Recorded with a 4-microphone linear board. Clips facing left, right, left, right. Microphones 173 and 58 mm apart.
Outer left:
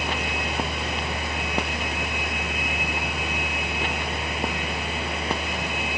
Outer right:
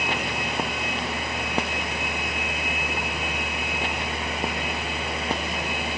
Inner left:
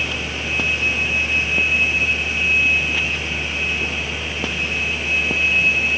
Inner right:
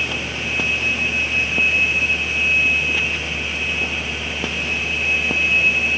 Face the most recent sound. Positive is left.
No sound to turn to.